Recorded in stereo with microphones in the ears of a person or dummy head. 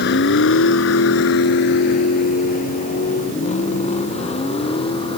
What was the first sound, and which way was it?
A vehicle, 70° left (ahead or behind).